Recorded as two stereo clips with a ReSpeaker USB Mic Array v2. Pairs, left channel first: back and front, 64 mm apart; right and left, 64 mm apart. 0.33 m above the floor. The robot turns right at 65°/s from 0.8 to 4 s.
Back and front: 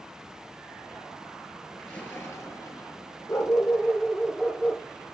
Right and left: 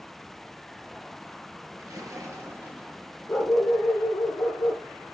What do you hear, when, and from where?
1.8 s a splash: 95° left, 5.5 m; by 3.0 s straight behind, 5.5 m
3.3 s a dog barking: 140° right, 7.5 m; by 4.8 s 95° right, 7.5 m